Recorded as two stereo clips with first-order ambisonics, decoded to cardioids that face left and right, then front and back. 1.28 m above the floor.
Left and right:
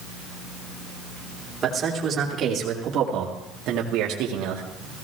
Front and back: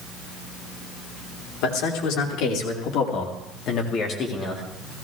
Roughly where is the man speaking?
Ahead.